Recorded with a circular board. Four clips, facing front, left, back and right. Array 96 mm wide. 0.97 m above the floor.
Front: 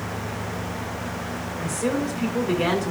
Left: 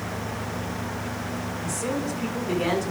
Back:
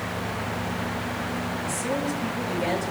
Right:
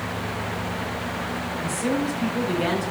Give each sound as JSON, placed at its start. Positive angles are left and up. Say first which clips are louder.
{"t": 1.6, "sound": "a woman speaking", "louder": "right 4 dB, front 6 dB", "azimuth_deg": 5, "distance_m": 8.5}